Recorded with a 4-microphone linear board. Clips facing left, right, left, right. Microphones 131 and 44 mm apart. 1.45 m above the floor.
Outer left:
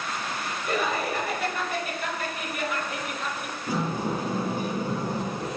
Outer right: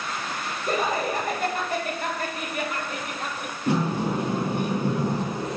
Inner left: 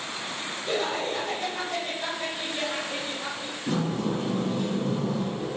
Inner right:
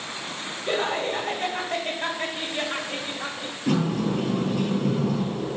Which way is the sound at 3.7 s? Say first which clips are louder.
Outer right 4 dB, inner right 4 dB; 70° right (ahead or behind).